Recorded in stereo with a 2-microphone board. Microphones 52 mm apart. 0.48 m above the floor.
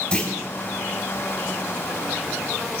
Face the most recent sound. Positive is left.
turn(degrees=25)  # may be behind; listen again after turning